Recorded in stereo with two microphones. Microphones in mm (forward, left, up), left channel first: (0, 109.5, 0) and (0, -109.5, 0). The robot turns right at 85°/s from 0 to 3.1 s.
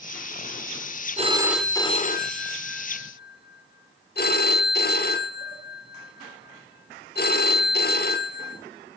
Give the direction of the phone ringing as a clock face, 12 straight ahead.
1 o'clock.